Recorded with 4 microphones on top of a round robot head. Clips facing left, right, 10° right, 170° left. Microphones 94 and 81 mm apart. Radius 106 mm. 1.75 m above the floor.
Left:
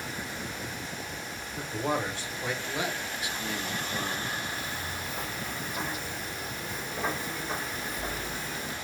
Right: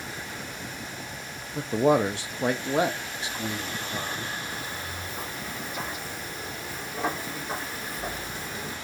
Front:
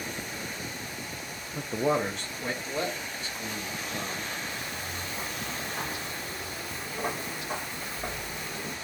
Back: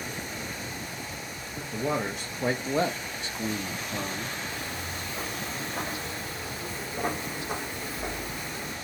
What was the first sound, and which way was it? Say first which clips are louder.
A man speaking: right 9 dB, front 3 dB; 70° right.